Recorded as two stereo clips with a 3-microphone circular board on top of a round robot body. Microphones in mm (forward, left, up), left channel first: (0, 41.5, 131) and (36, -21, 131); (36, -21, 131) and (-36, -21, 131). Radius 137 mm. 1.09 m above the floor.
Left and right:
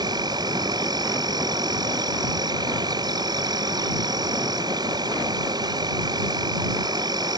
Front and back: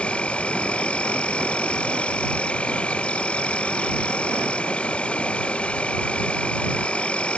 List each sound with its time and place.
0.0 s an insect: 75° right